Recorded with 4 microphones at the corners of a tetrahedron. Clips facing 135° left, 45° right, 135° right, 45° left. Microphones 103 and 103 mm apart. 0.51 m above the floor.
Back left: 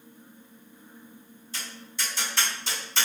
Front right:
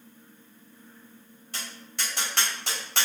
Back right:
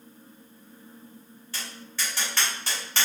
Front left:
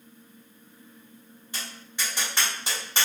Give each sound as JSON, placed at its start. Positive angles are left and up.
{"t": 1.5, "sound": "tapping", "azimuth_deg": -25, "distance_m": 2.0}